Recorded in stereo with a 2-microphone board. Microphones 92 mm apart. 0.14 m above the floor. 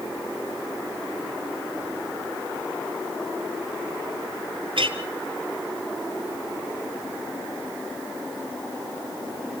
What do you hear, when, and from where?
4.8 s a clink: 70° right (ahead or behind), 1.8 m